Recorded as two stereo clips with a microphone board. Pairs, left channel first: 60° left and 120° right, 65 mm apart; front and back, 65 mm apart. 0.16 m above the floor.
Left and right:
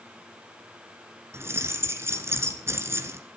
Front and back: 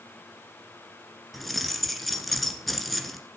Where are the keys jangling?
90° right, 1.5 m.